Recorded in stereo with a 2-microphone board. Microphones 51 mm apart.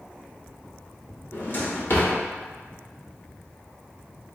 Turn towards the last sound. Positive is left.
turn(degrees=45)  # may be behind; listen again after turning